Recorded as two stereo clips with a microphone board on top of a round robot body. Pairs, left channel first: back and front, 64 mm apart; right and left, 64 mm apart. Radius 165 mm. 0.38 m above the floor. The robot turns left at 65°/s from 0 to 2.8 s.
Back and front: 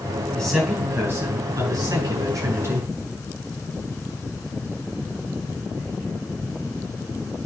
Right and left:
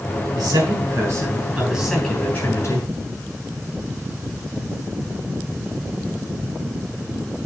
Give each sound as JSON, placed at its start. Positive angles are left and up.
{"t": 0.3, "sound": "a man speaking", "azimuth_deg": 100, "distance_m": 6.5}